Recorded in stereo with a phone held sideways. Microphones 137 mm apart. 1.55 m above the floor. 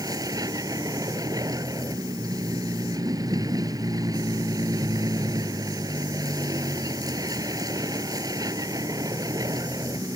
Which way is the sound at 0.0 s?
25° right (ahead or behind).